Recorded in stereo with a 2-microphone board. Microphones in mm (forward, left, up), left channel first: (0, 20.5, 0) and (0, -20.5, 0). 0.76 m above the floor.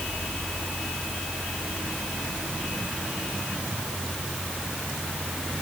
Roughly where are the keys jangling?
No keys jangling in this recording.